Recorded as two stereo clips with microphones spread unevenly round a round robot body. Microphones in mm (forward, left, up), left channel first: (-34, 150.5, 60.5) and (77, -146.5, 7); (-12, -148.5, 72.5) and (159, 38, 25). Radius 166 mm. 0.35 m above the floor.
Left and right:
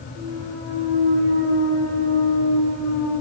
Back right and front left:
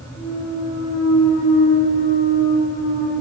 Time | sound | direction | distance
0.1 | a clunk | 130° right | 1.9 m